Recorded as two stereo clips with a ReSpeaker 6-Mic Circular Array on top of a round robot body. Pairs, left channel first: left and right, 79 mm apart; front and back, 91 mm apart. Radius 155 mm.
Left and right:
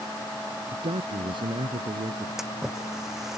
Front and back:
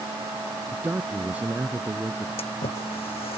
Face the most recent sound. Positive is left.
turn(degrees=-5)